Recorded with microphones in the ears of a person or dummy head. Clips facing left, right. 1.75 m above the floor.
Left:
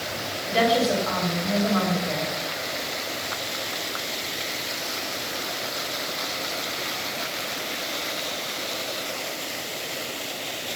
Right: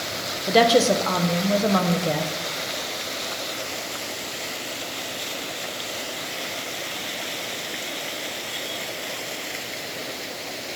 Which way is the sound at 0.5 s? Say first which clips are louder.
Right 4 dB; 60° right (ahead or behind).